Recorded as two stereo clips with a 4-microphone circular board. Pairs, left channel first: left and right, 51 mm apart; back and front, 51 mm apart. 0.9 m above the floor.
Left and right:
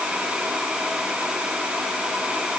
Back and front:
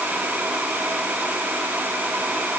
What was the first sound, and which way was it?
Only background noise.